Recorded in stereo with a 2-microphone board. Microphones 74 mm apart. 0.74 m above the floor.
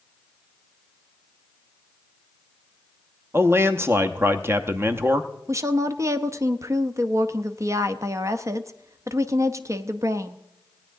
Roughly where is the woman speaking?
Right.